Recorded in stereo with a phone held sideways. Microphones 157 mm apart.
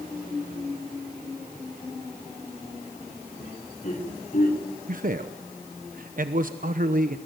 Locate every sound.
3.4 s laughter: 45° left (ahead or behind), 5 m; by 4.6 s 60° left (ahead or behind), 4 m
4.9 s a man speaking: 60° right (ahead or behind), 1.0 m